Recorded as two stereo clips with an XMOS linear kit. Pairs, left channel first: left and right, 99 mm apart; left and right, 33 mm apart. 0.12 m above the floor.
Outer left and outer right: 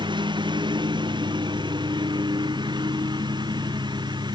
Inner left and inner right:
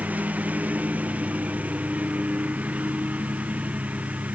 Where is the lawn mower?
50° right (ahead or behind); by 4.3 s 45° right (ahead or behind).